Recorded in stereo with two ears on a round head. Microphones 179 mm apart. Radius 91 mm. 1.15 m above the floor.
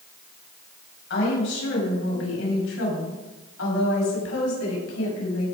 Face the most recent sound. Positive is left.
turn(degrees=80)